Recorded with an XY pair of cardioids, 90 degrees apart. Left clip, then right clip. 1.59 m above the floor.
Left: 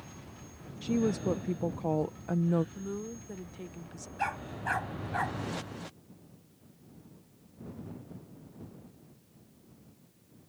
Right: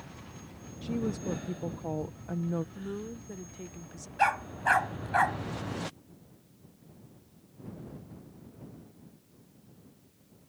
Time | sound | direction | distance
0.8 | a woman speaking | 40° left | ?
2.8 | a woman speaking | 5° left | ?
4.2 | a dog barking | 55° right | ?